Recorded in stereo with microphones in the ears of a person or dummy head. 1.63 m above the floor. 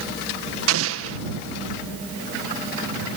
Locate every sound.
0.7 s an explosion: 85° right